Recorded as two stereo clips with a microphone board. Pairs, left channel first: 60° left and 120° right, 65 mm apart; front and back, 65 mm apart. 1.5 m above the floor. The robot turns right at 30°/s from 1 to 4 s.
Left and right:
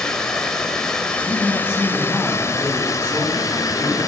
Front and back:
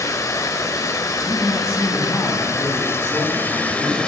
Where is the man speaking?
60° right, 8 m; by 4.1 s 20° left, 8 m.